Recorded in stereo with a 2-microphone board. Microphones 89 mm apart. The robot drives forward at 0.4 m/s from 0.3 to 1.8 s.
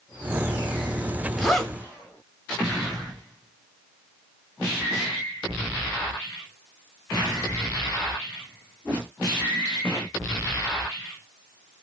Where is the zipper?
5° left (ahead or behind), 0.7 m.